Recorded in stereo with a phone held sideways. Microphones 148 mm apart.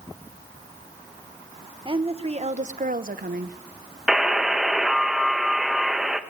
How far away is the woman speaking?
About 1.1 m.